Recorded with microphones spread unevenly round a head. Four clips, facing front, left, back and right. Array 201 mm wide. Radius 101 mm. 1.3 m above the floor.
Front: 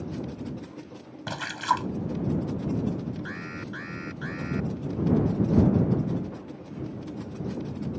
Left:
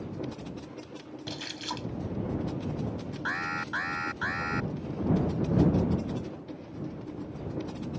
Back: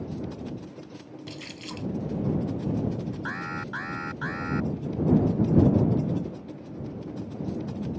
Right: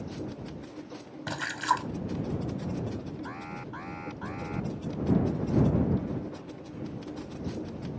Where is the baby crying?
No baby crying in this recording.